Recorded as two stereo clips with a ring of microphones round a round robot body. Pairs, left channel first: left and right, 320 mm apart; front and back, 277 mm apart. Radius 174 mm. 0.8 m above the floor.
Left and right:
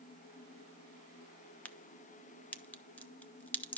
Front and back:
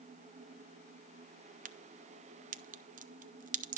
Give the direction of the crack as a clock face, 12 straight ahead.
6 o'clock.